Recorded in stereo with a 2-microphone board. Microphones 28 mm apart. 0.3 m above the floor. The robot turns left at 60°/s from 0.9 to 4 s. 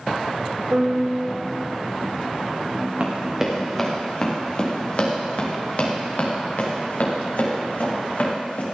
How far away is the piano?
About 1.5 m.